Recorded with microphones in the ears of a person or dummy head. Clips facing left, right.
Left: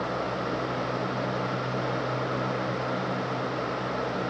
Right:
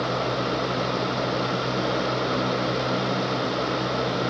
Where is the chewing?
I don't hear chewing.